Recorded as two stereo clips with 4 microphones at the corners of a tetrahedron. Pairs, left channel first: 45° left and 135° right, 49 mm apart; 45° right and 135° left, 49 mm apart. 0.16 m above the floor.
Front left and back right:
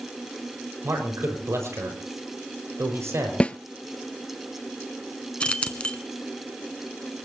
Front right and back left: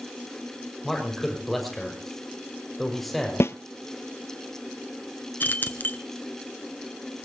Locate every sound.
0.8 s a man speaking: 130° right, 5.5 m
3.4 s a snare drum: 20° right, 0.6 m
5.4 s keys jangling: 15° right, 1.1 m